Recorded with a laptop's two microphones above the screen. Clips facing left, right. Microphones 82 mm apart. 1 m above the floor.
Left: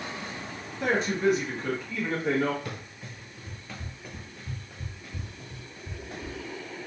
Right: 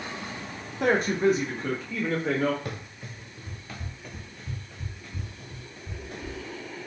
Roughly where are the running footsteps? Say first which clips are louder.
Right 2 dB; right.